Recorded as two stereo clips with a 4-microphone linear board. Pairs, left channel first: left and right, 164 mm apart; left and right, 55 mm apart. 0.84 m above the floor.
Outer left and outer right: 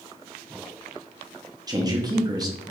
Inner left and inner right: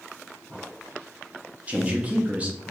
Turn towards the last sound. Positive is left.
turn(degrees=-25)  # may be behind; listen again after turning